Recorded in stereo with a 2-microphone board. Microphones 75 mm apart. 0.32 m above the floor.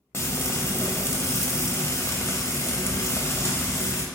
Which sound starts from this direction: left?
Frying, at 0.1 s.